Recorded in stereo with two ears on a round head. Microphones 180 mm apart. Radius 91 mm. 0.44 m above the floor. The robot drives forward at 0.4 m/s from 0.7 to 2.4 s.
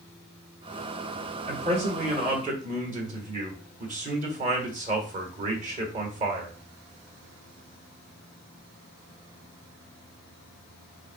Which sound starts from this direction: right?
A man speaking, at 1.5 s.